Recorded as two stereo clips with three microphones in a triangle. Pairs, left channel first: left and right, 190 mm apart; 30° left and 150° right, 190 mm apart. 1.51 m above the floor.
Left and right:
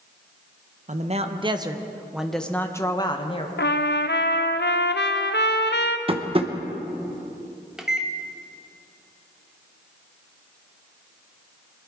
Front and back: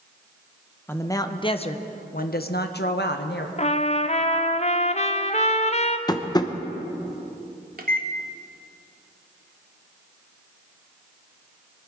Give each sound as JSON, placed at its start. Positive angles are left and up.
{"t": 0.9, "sound": "a man speaking", "azimuth_deg": -50, "distance_m": 1.0}
{"t": 3.6, "sound": "a trumpet", "azimuth_deg": 80, "distance_m": 0.7}
{"t": 6.1, "sound": "tapping", "azimuth_deg": -35, "distance_m": 0.9}
{"t": 7.8, "sound": "a microwave", "azimuth_deg": -175, "distance_m": 1.3}